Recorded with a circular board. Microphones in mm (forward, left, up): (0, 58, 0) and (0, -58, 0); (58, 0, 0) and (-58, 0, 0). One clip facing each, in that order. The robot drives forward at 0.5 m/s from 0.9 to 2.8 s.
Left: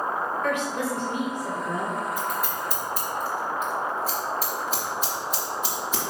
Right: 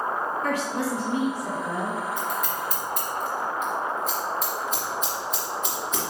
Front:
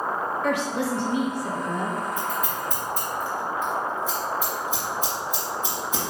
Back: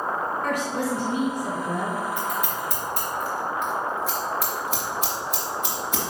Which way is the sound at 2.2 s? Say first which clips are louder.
Even, even; 175° left.